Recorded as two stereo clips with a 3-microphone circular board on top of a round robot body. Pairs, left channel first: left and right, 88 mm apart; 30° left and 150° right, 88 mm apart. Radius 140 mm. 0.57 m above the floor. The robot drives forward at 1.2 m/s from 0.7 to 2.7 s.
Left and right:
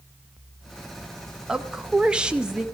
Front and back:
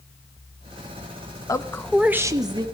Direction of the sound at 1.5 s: 10° right.